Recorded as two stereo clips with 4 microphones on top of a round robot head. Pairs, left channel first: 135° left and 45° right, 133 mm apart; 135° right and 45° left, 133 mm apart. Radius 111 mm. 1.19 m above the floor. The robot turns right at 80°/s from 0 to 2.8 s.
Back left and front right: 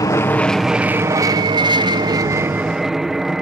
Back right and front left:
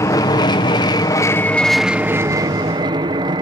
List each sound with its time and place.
0.0 s an aircraft: 175° left; by 3.4 s 40° left